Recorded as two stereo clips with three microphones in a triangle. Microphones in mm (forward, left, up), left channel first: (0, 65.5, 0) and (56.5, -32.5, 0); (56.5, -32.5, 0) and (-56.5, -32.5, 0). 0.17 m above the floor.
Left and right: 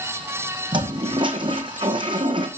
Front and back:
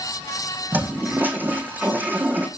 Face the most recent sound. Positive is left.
turn(degrees=-105)